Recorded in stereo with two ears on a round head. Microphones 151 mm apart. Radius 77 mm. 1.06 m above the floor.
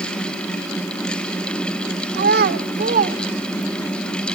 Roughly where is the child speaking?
Right.